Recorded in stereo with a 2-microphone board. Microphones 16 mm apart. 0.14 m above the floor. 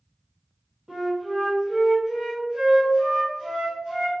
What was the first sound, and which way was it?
A flute, 70° right (ahead or behind).